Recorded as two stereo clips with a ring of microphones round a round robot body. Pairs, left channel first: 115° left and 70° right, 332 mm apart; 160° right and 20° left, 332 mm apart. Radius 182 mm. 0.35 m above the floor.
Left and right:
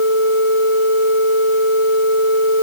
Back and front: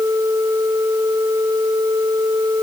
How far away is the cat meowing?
I don't hear a cat meowing.